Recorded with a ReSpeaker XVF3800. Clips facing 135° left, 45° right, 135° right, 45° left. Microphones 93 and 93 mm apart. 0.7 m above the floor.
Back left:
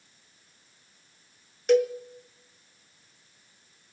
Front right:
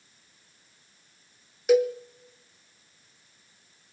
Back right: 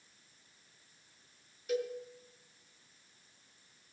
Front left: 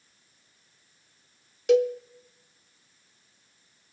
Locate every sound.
1.7 s a cowbell: 40° left, 0.8 m